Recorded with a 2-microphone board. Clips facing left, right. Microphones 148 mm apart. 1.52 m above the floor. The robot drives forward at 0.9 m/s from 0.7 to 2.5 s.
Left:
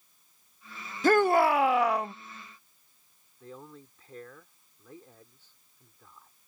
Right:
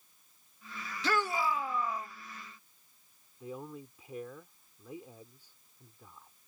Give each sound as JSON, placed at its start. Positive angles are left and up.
{"t": 1.0, "sound": "a shout", "side_deg": 50}
{"t": 3.4, "sound": "a man speaking", "side_deg": -15}